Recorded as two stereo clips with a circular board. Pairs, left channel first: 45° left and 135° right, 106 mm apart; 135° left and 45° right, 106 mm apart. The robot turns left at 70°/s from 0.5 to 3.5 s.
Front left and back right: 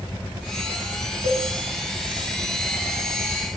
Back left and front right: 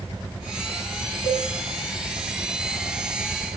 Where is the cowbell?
70° right, 6 m; by 1.5 s 85° right, 6 m.